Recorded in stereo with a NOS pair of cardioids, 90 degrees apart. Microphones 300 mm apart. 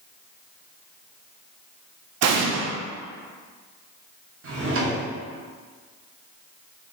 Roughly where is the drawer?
Ahead right.